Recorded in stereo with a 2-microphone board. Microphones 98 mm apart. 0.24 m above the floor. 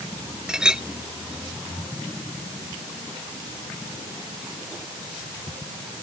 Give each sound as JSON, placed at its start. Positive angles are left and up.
{"t": 0.5, "sound": "a clink", "side_deg": -5}